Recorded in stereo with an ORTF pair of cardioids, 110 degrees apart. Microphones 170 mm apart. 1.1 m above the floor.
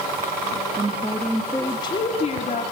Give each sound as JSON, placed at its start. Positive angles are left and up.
{"t": 0.5, "sound": "a woman speaking", "azimuth_deg": -25, "distance_m": 2.0}